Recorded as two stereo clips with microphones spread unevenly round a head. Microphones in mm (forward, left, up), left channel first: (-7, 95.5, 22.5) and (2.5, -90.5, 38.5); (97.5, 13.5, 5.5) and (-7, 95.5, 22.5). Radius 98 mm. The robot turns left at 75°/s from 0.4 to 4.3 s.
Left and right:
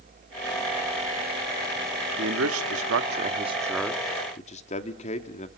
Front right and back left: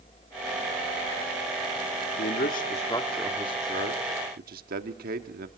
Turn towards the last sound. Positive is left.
turn(degrees=145)